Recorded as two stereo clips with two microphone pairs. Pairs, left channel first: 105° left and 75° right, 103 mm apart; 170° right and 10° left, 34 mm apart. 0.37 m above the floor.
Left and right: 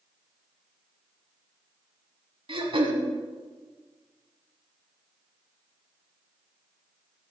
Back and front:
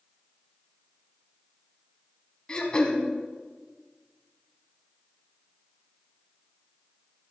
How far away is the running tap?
No running tap in this recording.